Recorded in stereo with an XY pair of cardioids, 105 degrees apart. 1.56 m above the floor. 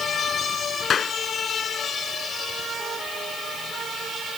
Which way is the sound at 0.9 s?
50° left.